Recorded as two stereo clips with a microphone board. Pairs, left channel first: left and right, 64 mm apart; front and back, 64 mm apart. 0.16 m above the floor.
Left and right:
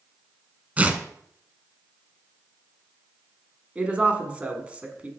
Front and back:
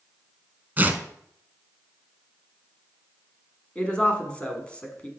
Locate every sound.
0.8 s tearing paper: 140° right, 0.7 m
3.8 s a woman speaking: 45° right, 1.2 m